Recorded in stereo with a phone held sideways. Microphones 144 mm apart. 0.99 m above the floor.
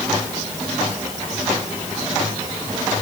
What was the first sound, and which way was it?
Only background noise.